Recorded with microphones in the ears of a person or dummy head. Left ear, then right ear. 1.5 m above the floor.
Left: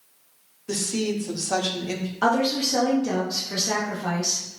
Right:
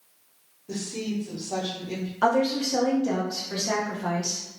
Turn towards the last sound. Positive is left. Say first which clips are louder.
# left 1 dB
turn(degrees=-5)  # may be behind; listen again after turning